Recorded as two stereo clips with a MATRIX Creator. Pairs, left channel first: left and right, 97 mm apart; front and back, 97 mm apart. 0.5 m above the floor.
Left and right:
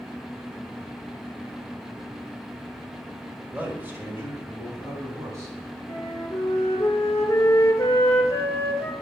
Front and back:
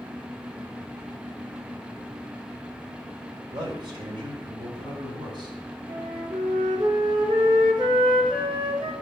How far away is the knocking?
I don't hear knocking.